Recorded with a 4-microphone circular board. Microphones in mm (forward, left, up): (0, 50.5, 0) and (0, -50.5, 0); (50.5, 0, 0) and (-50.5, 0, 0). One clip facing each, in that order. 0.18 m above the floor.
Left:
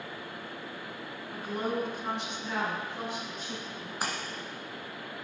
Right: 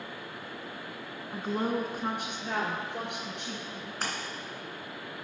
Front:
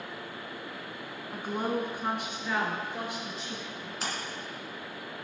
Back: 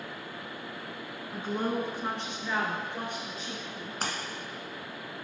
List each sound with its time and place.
1.3 s a woman speaking: 50° right, 1.1 m; by 3.9 s 80° right, 3.5 m
4.0 s a splash: 160° left, 2.0 m